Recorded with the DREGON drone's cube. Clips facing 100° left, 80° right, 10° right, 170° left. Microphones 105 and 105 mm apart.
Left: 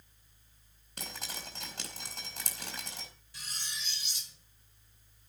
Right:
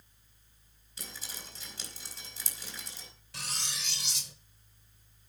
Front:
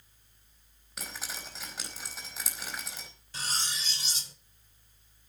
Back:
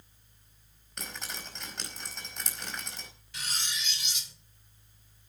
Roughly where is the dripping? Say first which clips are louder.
Left 4 dB, even; left.